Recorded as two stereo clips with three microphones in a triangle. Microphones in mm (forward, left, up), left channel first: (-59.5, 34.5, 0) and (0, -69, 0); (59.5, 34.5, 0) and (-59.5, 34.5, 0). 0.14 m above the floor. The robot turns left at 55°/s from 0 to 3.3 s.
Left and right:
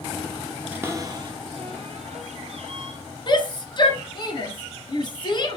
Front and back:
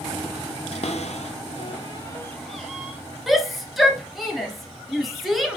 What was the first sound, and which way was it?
A cupboard door, 15° left.